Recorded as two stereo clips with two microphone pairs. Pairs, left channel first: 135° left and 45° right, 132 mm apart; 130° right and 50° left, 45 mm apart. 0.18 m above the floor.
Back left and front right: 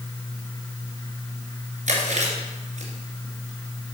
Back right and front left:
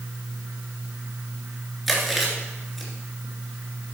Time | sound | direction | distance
1.9 | chewing | 40° right | 2.5 m